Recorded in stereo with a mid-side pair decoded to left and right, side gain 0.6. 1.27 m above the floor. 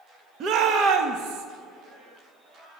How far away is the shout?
About 1.3 m.